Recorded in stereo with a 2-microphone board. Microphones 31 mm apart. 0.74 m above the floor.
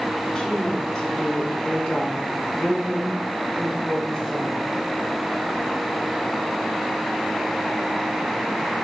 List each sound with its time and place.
0.3 s a woman speaking: 20° left (ahead or behind), 1.6 m